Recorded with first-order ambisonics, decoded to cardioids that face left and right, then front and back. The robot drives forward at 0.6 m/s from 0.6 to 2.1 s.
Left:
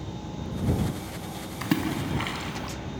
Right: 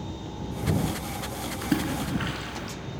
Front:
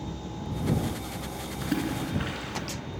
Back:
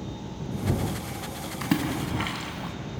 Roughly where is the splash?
Behind left.